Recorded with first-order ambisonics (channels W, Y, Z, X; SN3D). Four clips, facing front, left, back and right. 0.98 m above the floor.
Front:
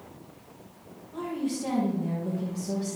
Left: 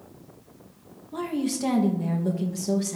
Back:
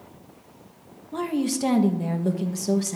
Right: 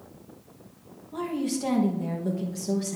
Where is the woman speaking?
165° left, 1.1 m.